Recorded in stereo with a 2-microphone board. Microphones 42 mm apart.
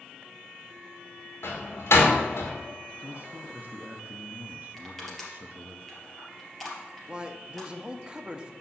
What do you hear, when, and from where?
1.4 s a door slam: 75° left (ahead or behind), 1.9 m
3.0 s a man speaking: 40° right (ahead or behind), 0.8 m
4.8 s crushing: centre (ahead or behind), 3 m
7.1 s a man speaking: 20° right (ahead or behind), 0.8 m